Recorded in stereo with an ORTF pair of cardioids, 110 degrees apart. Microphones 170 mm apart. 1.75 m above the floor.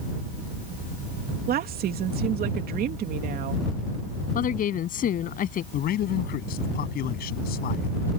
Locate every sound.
1.5 s a woman speaking: 65° right
4.3 s a woman speaking: 55° left
5.7 s a man speaking: 65° left